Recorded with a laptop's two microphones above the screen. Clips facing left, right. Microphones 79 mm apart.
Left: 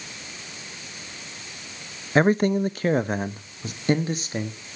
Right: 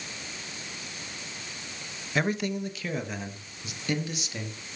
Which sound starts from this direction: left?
A man speaking, at 2.1 s.